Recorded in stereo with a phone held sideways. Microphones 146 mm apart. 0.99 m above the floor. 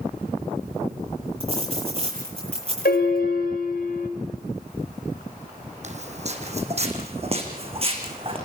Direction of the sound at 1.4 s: 40° right (ahead or behind).